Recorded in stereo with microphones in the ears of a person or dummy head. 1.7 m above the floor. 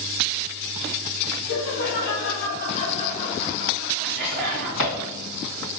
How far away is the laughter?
About 1.6 m.